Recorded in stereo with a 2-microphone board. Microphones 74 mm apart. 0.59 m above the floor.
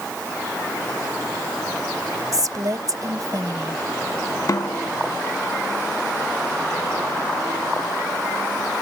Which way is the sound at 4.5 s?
50° left (ahead or behind).